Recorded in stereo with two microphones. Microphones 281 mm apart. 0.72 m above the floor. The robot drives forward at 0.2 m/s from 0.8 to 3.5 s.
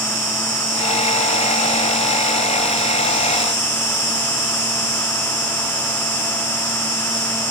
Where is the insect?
65° right (ahead or behind), 3 m; by 7.5 s 55° right (ahead or behind), 3.5 m.